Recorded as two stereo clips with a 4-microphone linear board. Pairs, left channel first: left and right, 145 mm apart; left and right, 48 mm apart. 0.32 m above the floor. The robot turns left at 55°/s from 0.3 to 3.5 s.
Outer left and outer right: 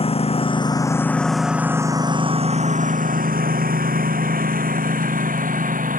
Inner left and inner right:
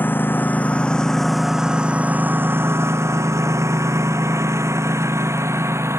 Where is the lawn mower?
40° left (ahead or behind); by 6.0 s 70° right (ahead or behind).